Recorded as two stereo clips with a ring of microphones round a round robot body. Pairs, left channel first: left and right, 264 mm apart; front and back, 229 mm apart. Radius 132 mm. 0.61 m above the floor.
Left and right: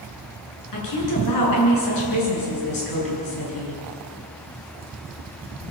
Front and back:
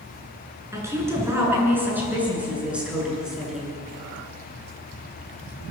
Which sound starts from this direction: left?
A woman speaking, at 0.7 s.